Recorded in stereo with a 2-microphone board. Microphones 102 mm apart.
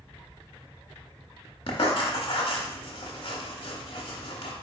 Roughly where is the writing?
Left.